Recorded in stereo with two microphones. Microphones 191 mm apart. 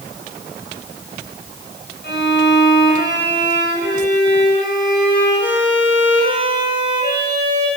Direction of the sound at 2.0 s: 70° left (ahead or behind).